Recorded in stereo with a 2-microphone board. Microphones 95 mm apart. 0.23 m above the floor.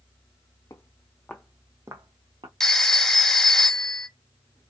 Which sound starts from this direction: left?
Footsteps, at 0.7 s.